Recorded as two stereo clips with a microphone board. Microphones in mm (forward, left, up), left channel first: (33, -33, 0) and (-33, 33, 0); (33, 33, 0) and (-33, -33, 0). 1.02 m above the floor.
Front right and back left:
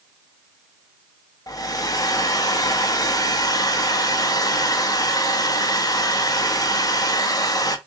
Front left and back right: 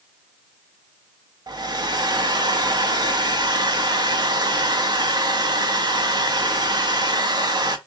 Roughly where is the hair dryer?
Right.